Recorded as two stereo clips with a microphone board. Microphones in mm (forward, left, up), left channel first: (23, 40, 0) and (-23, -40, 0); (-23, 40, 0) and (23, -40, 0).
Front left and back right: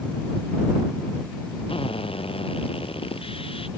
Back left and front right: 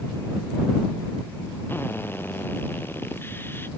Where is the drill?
55° left.